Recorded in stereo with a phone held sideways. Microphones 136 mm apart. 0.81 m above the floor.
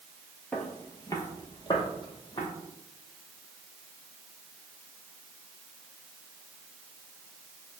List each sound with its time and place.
0.5 s footsteps: 10° left (ahead or behind), 0.8 m; by 2.5 s 35° left (ahead or behind), 1.5 m